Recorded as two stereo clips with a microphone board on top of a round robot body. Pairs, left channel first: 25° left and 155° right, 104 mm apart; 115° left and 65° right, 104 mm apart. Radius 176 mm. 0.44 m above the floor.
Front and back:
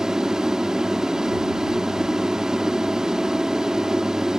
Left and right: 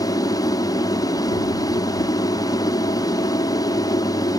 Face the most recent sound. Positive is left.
turn(degrees=120)